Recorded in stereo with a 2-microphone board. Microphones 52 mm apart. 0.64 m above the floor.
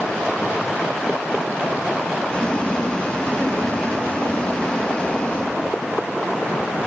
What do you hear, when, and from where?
2.3 s boiling: 25° left (ahead or behind), 0.9 m